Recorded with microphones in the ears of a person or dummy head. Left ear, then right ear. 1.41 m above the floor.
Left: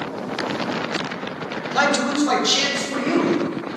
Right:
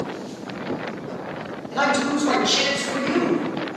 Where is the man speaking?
40° left (ahead or behind), 0.6 m; by 3.5 s 30° left (ahead or behind), 2.5 m.